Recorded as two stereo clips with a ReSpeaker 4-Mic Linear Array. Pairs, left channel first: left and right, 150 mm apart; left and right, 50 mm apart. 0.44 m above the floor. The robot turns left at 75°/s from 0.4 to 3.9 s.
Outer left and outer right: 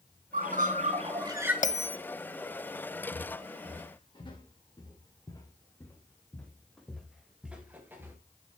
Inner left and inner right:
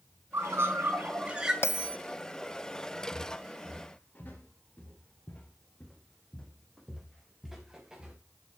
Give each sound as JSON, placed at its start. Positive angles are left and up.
{"t": 0.3, "sound": "a bird", "azimuth_deg": -80, "distance_m": 1.5}
{"t": 1.6, "sound": "a bell", "side_deg": 60, "distance_m": 0.5}
{"t": 3.1, "sound": "footsteps", "side_deg": 75, "distance_m": 4.0}